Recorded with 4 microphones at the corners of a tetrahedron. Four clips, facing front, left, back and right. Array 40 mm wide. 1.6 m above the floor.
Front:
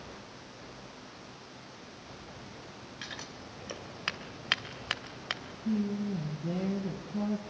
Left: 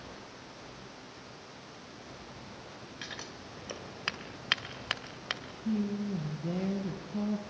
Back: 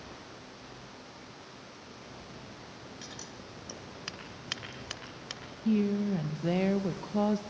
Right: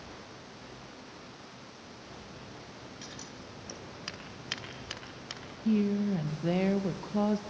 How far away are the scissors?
About 2 m.